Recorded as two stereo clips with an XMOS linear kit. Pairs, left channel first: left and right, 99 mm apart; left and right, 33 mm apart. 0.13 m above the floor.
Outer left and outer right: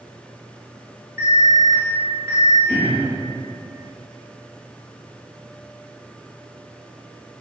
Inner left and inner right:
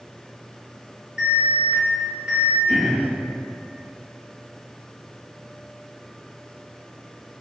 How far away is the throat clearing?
About 1.1 m.